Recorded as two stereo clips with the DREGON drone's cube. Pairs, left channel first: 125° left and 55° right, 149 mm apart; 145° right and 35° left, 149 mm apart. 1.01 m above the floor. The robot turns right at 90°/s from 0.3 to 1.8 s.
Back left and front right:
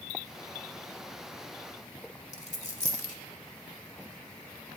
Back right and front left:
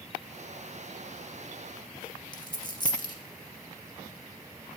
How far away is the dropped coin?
About 1.0 m.